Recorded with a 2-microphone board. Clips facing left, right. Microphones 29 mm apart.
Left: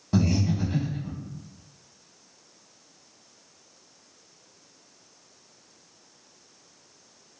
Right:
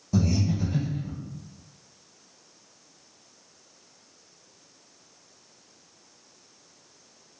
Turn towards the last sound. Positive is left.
turn(degrees=50)  # may be behind; listen again after turning